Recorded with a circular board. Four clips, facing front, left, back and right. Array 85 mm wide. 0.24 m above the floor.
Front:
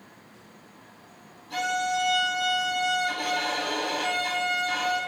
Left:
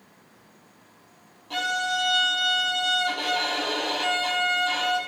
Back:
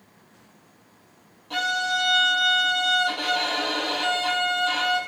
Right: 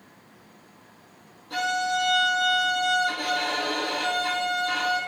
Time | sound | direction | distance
1.5 | a violin | 130° left | 4 m